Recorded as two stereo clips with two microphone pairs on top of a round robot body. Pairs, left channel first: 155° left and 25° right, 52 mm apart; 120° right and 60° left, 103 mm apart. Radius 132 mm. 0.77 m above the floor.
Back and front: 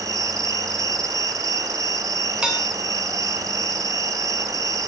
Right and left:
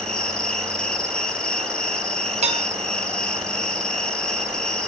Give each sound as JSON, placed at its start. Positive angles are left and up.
{"t": 0.0, "sound": "an insect", "azimuth_deg": -35, "distance_m": 0.8}
{"t": 2.4, "sound": "dishes clattering", "azimuth_deg": 50, "distance_m": 2.5}